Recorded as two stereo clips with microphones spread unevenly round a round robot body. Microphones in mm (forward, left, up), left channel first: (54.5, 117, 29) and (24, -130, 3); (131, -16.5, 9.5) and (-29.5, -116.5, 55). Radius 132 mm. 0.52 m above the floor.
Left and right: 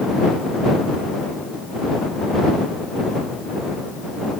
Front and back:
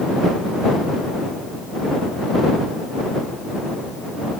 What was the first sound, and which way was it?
Only background noise.